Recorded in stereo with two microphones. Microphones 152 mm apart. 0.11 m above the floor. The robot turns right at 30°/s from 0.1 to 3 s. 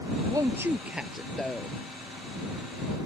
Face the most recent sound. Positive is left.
turn(degrees=50)